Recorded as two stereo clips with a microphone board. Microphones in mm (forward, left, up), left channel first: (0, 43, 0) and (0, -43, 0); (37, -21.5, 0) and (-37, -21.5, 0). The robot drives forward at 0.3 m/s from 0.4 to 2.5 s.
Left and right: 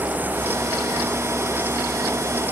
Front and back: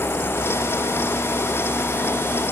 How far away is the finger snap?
No finger snap in this recording.